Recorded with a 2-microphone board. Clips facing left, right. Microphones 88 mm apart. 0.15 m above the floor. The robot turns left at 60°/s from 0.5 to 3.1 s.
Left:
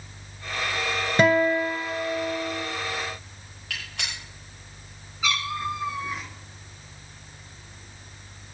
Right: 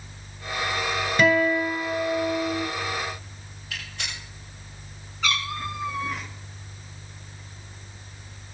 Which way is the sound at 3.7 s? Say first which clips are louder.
Left 1 dB; 80° left.